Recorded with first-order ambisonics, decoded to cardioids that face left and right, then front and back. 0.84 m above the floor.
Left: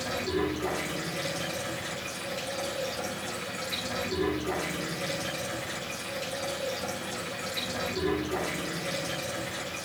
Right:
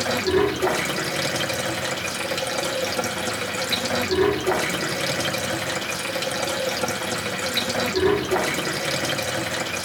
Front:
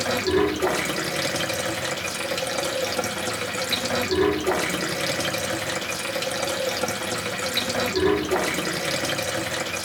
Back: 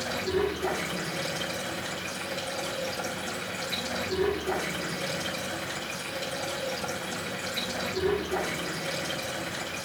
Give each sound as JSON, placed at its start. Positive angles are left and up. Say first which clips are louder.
{"t": 0.0, "sound": "running water", "louder": "right 9 dB, front 7 dB", "azimuth_deg": -45, "distance_m": 1.2}